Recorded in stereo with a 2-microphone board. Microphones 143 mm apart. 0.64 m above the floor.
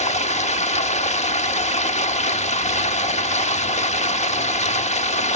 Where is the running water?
55° left (ahead or behind), 1.0 m.